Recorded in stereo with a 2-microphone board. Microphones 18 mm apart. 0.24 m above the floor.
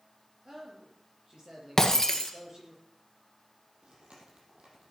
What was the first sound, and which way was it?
A man speaking, 45° right (ahead or behind).